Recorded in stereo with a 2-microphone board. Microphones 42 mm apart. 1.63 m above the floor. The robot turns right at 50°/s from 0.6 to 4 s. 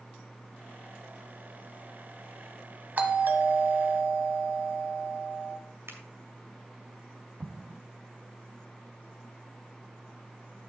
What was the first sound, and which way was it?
A doorbell, 135° right.